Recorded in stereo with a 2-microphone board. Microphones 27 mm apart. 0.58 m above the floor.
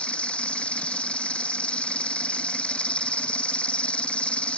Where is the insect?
55° left (ahead or behind).